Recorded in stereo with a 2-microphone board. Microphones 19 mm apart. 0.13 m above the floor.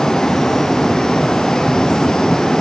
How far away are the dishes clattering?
No dishes clattering in this recording.